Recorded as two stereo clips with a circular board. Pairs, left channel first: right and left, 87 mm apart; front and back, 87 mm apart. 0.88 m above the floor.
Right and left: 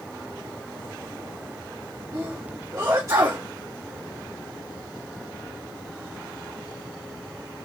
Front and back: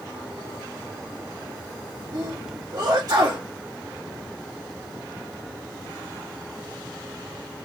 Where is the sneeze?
140° left, 1.8 m.